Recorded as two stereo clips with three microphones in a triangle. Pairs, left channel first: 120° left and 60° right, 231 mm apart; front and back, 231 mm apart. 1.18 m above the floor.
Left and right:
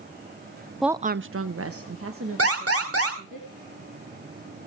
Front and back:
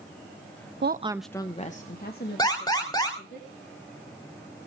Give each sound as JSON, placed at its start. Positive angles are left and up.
{"t": 0.8, "sound": "a woman speaking", "azimuth_deg": -150, "distance_m": 0.5}
{"t": 2.4, "sound": "an alarm", "azimuth_deg": -75, "distance_m": 3.0}